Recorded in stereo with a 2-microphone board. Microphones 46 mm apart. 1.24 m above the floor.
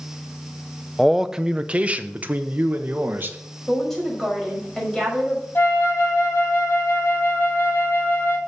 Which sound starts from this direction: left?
A flute, at 5.5 s.